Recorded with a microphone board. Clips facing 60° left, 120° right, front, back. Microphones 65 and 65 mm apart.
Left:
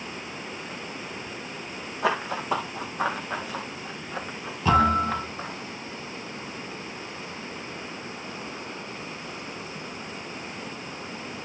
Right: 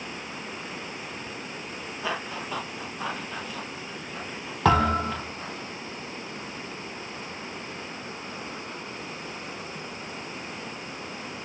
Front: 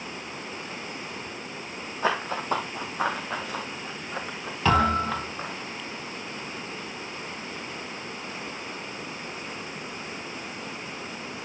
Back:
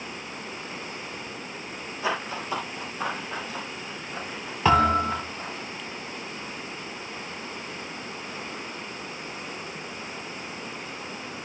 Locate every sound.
2.0 s running footsteps: 45° left, 1.9 m; by 5.5 s 25° left, 5.5 m
4.7 s a thud: 100° right, 5.5 m